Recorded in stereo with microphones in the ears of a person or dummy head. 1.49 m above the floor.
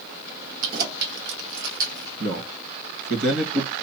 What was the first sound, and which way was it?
Keys jangling, 50° right (ahead or behind).